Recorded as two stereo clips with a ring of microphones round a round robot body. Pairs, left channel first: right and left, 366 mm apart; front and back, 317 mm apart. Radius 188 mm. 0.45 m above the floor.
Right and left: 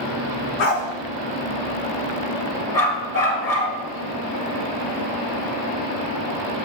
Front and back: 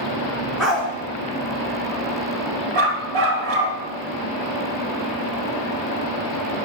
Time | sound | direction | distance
0.6 | a dog barking | 90° right | 2 m
2.7 | a dog barking | 140° right | 3 m